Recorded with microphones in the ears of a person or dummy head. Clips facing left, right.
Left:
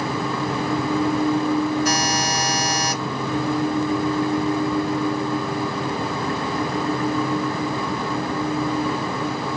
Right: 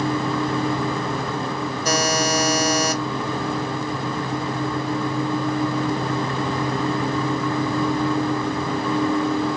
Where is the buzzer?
80° right, 1.5 m.